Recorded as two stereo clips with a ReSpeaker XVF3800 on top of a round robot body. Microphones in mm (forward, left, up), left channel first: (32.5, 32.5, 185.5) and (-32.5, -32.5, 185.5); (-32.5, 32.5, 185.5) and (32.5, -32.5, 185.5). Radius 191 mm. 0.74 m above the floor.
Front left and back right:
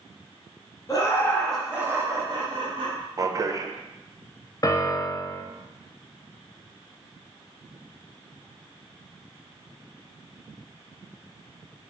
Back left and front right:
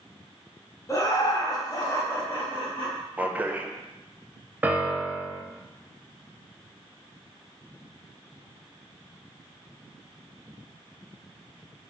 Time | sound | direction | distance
0.9 | laughter | 90° left | 1.2 m
3.2 | a man speaking | 110° right | 0.6 m
4.6 | a piano | 20° left | 0.6 m